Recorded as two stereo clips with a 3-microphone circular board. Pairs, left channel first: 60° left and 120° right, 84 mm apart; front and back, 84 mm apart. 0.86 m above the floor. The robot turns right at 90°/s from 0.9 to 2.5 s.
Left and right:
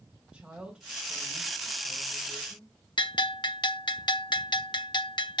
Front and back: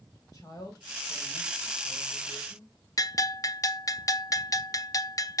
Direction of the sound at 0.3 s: 45° right.